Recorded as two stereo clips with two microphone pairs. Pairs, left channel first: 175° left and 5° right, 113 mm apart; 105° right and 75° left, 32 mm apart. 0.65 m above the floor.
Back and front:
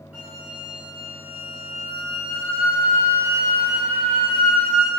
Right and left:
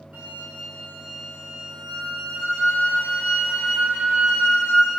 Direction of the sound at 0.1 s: 70° left.